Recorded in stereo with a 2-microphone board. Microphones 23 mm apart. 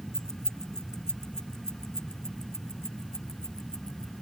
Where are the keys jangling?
25° left (ahead or behind); by 4.1 s 30° left (ahead or behind).